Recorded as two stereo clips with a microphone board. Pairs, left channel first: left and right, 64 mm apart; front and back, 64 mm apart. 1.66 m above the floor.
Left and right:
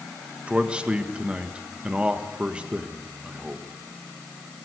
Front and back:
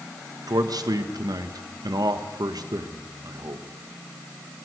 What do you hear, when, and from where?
0.5 s a man speaking: 165° right, 1.6 m